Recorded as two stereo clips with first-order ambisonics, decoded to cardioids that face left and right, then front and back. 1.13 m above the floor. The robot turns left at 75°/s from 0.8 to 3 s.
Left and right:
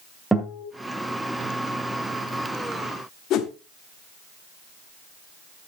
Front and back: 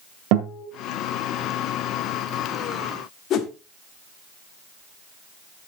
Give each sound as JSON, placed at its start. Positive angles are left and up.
{"t": 0.3, "sound": "a guitar", "azimuth_deg": 180, "distance_m": 1.9}
{"t": 3.3, "sound": "a whoosh", "azimuth_deg": 45, "distance_m": 1.1}